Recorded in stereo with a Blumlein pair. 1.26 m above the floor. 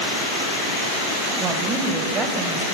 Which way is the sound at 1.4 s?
25° right.